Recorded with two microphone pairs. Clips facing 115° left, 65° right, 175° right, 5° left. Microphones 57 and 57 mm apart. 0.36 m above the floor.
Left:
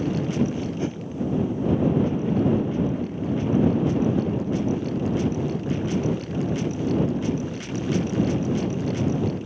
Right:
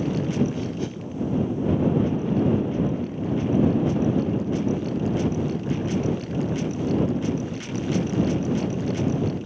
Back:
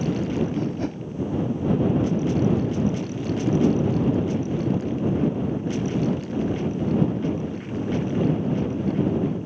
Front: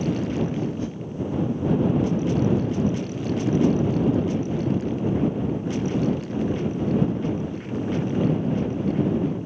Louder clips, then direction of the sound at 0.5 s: Left 1 dB, back 1 dB; 175° left.